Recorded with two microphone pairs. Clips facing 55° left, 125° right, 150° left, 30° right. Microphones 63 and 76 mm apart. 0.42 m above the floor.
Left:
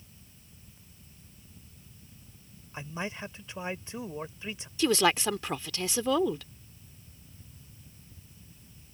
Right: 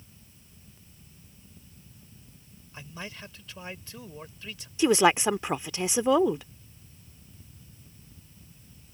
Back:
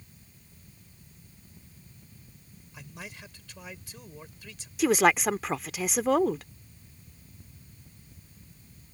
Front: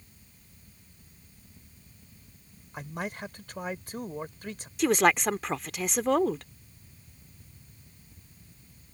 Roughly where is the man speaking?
Ahead.